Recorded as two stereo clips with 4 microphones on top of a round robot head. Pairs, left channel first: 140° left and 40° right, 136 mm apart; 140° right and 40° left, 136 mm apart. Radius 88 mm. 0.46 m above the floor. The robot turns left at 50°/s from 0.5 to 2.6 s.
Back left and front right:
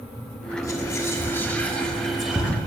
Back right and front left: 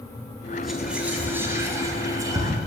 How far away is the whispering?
About 0.8 m.